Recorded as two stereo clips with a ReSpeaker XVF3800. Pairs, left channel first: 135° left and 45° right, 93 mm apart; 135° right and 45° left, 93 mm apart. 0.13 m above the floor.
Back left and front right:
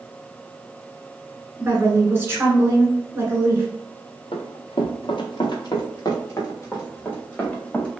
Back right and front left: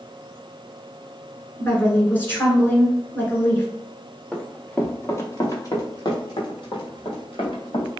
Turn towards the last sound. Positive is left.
turn(degrees=-150)